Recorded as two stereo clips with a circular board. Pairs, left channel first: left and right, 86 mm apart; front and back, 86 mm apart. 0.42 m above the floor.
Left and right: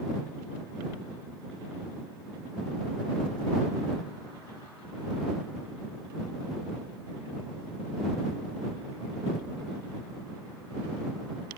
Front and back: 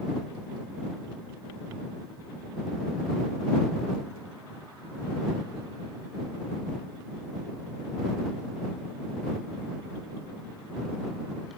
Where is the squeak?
I don't hear a squeak.